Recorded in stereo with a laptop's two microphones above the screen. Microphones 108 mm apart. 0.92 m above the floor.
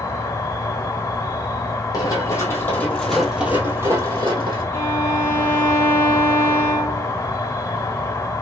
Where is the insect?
25° left (ahead or behind), 0.8 m.